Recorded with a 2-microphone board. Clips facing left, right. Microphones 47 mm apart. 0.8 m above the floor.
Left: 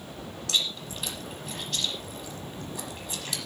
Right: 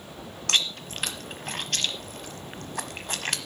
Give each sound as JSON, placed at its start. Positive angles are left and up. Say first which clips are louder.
{"t": 0.5, "sound": "chewing", "louder": "right 3 dB", "side_deg": -60, "distance_m": 1.1}